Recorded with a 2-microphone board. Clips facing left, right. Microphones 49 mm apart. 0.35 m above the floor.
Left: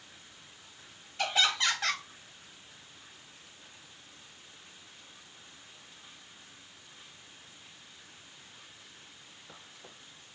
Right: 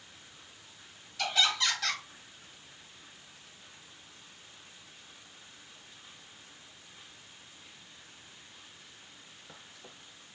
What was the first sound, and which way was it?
Laughter, 25° left (ahead or behind).